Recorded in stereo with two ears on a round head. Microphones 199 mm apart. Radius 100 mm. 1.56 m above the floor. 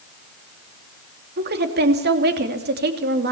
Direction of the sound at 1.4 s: 50° right (ahead or behind).